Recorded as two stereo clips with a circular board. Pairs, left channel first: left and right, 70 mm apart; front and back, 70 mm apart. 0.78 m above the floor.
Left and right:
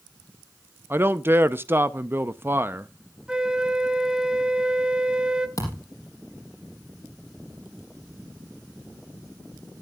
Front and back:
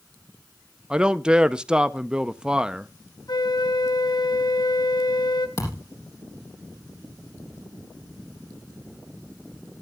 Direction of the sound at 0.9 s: 110° right.